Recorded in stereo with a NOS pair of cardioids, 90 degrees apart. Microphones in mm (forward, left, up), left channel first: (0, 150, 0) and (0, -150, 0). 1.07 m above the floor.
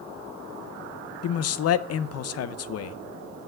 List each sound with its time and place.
1.2 s a man speaking: 55° left, 0.6 m